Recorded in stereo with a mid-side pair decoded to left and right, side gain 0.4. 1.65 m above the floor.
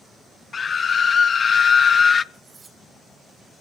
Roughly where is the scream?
Ahead left.